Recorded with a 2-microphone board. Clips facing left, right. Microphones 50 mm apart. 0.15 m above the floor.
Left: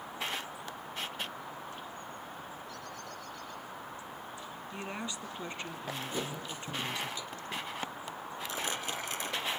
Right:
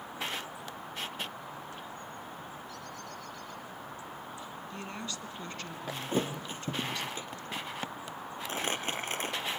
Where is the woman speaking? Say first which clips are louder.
Left 2 dB; 15° left (ahead or behind), 1.5 m.